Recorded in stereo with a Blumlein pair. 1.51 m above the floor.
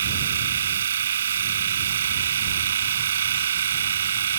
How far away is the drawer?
I don't hear a drawer.